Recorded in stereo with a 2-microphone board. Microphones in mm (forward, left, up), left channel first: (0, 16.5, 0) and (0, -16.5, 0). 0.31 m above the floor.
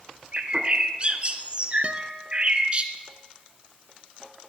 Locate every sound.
0.3 s a bird: 35° right (ahead or behind), 2 m
1.8 s a guitar: 40° right (ahead or behind), 1.3 m